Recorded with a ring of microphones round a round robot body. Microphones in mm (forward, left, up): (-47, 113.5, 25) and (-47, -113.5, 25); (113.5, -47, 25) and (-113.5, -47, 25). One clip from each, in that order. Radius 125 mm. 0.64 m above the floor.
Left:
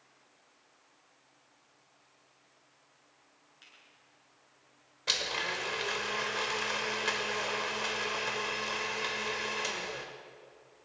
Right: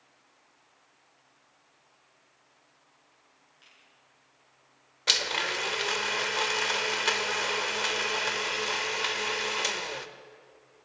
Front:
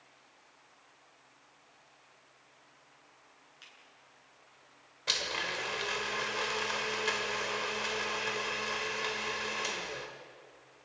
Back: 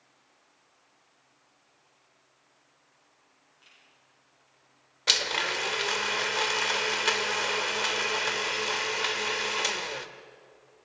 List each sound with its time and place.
3.6 s a finger snap: 15° left, 8.5 m
5.1 s a blender: 135° right, 1.4 m